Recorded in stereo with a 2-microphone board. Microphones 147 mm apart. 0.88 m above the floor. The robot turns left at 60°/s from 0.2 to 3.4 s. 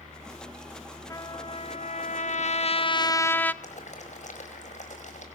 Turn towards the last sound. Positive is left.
turn(degrees=55)  # may be behind; listen again after turning